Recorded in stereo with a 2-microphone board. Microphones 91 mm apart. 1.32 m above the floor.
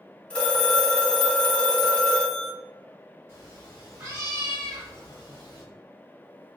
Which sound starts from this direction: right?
A cat meowing, at 3.3 s.